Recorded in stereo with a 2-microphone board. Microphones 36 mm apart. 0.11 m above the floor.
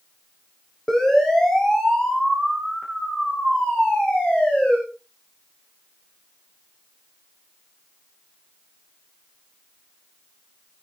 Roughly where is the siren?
Centre.